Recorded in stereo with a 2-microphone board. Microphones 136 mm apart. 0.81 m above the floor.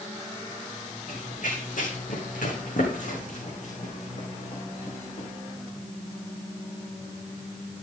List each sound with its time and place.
1.1 s running footsteps: 70° left (ahead or behind), 4 m; by 5.3 s 40° left (ahead or behind), 4.5 m